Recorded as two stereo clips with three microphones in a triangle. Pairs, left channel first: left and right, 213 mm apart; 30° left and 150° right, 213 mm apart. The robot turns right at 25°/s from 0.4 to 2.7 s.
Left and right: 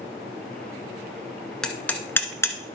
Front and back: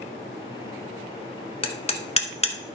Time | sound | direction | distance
1.6 | hammering | 5° left | 0.9 m